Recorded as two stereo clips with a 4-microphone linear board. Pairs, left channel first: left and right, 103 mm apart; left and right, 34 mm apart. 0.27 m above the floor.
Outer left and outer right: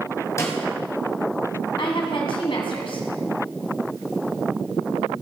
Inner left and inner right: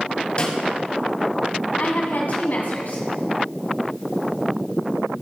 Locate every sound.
0.4 s a snare drum: 30° left (ahead or behind), 1.7 m
1.8 s a woman speaking: 55° left (ahead or behind), 1.9 m